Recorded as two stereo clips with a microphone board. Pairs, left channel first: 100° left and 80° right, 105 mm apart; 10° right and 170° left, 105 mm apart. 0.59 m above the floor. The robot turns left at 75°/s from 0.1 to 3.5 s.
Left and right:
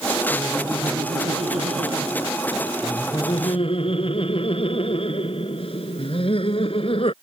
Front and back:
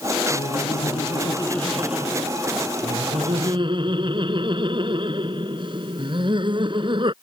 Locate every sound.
0.3 s laughter: 10° left; by 7.1 s 130° left